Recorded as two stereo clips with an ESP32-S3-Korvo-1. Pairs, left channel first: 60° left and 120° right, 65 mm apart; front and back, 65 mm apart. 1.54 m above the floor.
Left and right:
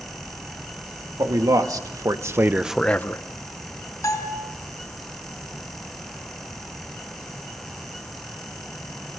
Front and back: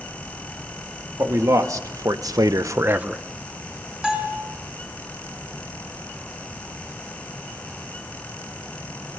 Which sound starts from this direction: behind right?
A man speaking, at 1.2 s.